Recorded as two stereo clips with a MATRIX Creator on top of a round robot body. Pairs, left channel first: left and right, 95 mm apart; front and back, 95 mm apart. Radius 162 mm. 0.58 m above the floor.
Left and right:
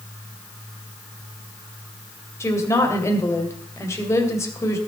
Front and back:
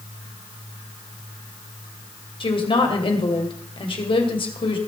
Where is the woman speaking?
30° left, 2.5 m.